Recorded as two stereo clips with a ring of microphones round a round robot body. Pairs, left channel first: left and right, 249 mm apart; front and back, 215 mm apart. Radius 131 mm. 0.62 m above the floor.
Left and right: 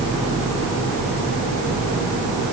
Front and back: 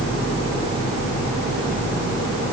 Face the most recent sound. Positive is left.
No sound to turn to.